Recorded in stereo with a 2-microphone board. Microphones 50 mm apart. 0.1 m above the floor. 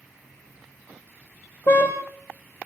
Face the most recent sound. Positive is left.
turn(degrees=35)  # may be behind; listen again after turning